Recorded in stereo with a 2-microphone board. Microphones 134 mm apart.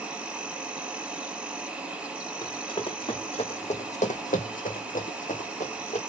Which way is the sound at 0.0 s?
10° right (ahead or behind).